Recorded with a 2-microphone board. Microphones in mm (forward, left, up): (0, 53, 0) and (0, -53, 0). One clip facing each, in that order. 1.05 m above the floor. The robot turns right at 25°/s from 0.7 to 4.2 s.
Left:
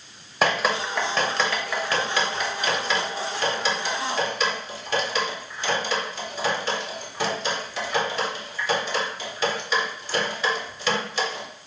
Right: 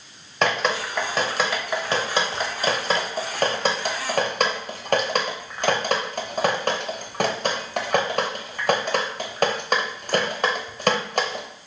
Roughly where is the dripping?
Centre.